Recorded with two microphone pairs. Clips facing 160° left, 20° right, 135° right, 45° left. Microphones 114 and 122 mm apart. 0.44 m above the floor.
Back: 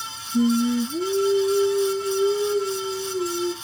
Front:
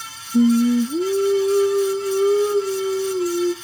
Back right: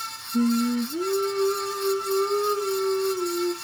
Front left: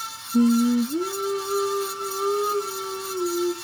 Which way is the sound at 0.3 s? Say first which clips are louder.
Front 5 dB, front left 4 dB; 35° right.